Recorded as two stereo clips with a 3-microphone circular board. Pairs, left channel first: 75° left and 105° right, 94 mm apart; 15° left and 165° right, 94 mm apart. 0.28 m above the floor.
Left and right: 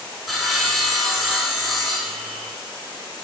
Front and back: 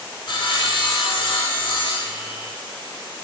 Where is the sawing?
15° right, 0.6 m.